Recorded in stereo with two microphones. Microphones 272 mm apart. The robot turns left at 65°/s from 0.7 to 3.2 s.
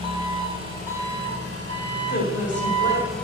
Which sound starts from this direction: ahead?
An engine running, at 0.0 s.